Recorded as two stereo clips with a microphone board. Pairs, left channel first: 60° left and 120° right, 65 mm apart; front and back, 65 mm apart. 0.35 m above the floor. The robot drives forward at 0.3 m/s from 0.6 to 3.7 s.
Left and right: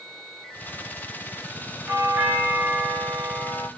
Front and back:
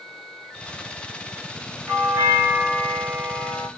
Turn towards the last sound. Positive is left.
turn(degrees=-165)